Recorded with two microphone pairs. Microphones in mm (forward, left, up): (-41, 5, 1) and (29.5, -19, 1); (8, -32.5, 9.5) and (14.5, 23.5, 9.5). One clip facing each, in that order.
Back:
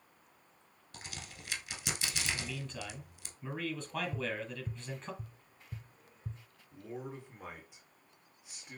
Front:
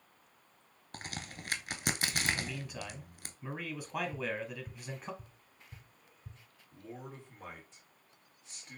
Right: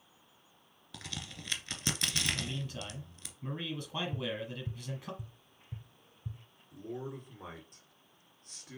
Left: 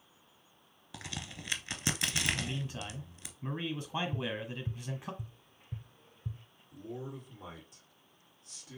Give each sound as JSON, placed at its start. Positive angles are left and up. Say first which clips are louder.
{"t": 0.9, "sound": "a crack", "louder": "front 5 dB, left 1 dB", "azimuth_deg": 10, "distance_m": 0.8}
{"t": 2.3, "sound": "a man speaking", "louder": "front 1 dB, left 1 dB", "azimuth_deg": 45, "distance_m": 1.0}
{"t": 4.1, "sound": "tapping", "louder": "even, even", "azimuth_deg": 120, "distance_m": 0.6}
{"t": 6.7, "sound": "a man speaking", "louder": "back 4 dB, right 1 dB", "azimuth_deg": -125, "distance_m": 2.0}